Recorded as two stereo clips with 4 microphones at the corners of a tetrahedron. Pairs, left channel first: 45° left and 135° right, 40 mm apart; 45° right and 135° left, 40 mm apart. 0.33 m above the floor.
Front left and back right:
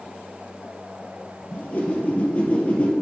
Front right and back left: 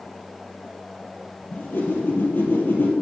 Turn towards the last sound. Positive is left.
turn(degrees=-10)